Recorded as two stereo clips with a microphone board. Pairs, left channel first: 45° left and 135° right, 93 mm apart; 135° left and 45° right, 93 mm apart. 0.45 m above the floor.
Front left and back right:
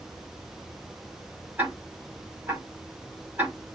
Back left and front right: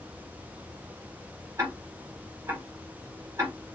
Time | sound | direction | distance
1.6 | ticking | 75° right | 1.7 m